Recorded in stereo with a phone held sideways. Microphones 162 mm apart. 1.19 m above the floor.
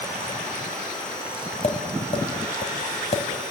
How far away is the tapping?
About 2 m.